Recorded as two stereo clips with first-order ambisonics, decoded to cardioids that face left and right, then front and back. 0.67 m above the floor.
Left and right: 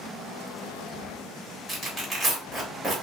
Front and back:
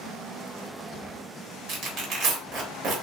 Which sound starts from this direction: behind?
Tearing paper, at 1.7 s.